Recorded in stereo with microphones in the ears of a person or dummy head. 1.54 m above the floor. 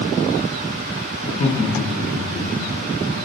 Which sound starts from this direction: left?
Laughter, at 1.2 s.